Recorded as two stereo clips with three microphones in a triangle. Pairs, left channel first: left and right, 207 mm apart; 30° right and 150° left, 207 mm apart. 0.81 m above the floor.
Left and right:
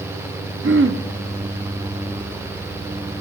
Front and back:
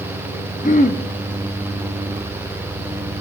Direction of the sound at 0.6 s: 80° right.